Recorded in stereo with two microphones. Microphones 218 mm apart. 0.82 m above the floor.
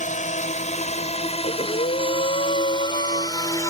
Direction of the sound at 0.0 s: 35° left (ahead or behind).